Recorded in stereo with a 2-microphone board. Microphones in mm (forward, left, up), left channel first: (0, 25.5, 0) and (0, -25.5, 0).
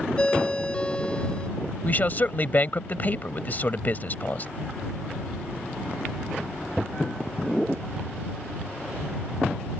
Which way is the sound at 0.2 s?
25° left (ahead or behind).